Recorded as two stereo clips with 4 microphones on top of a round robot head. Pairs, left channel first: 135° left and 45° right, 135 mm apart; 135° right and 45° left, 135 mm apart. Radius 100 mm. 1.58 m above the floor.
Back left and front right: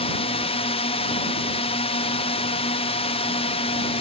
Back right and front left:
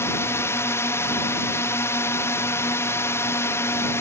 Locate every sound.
0.0 s a drone: 160° left